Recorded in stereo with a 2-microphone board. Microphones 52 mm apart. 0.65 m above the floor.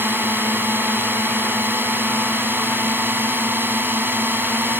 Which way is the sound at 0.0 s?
40° right (ahead or behind).